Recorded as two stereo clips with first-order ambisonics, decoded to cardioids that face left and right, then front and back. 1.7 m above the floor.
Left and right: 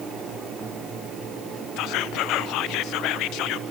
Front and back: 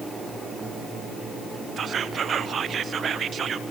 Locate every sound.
1.8 s whispering: 120° left, 0.5 m